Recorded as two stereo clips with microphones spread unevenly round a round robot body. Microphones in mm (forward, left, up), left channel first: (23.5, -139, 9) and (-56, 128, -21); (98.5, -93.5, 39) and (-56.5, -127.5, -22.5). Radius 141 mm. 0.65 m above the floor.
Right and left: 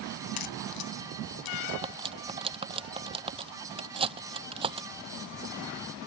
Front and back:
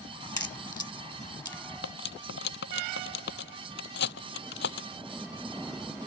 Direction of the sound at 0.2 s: 55° right.